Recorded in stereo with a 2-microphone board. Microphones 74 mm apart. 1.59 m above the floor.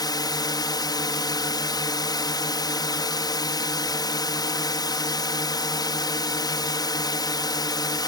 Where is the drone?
65° left (ahead or behind).